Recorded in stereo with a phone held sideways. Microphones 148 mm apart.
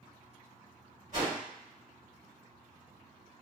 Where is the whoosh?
60° right (ahead or behind), 1.6 m.